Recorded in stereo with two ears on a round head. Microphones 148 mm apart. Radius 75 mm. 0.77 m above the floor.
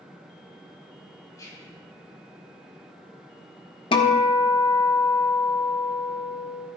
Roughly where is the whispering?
Left.